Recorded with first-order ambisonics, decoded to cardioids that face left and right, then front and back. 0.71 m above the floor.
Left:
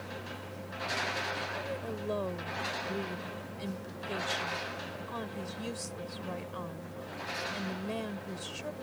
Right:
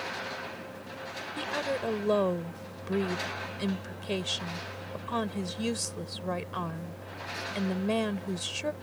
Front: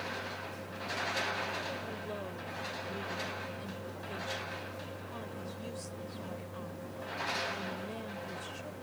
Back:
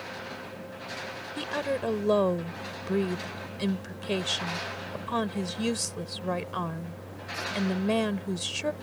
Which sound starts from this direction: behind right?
A woman speaking, at 1.4 s.